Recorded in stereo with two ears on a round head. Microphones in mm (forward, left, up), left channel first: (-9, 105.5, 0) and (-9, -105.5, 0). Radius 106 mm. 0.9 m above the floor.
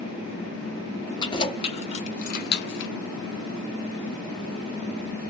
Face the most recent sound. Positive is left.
turn(degrees=55)  # may be behind; listen again after turning